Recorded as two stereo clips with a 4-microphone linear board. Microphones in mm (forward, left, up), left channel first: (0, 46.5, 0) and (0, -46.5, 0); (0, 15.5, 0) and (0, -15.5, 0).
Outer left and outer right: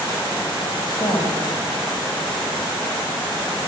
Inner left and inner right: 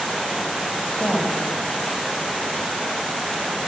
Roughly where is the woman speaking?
Left.